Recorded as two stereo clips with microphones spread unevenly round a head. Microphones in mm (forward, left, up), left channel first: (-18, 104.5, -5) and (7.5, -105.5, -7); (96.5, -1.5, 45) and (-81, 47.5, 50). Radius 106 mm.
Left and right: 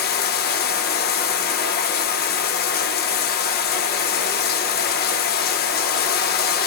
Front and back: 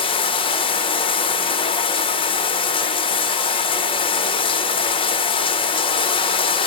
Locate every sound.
0.0 s running water: 50° left, 0.9 m